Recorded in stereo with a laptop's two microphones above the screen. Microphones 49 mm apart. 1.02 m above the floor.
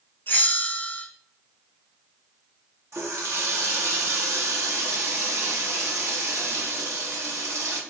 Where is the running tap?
80° right, 0.9 m.